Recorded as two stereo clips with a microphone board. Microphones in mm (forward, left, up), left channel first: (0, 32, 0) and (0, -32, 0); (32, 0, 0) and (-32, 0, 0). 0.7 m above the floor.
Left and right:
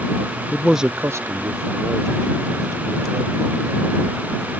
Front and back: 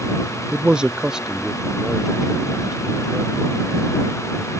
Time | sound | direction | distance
0.5 | a man speaking | 115° left | ?